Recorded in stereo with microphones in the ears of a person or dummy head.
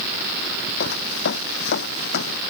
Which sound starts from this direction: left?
Footsteps, at 0.8 s.